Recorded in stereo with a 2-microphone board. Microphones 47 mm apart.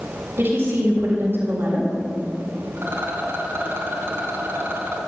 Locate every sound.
0.4 s a woman speaking: 50° right (ahead or behind), 4.5 m
2.8 s a rattle: 55° right (ahead or behind), 3.5 m